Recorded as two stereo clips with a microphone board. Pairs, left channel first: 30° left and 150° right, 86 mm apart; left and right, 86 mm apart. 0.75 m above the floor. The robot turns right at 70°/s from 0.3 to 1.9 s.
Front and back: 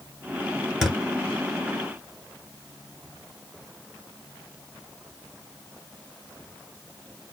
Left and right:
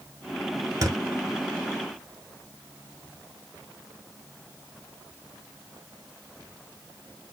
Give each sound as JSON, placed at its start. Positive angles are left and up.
{"t": 0.8, "sound": "a thud", "azimuth_deg": -65, "distance_m": 0.9}